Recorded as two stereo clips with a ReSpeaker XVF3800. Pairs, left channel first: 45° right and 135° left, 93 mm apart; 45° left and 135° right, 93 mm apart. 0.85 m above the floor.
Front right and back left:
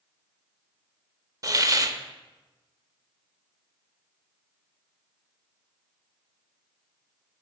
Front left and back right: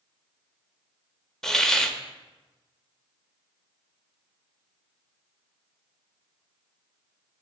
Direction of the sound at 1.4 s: 125° left.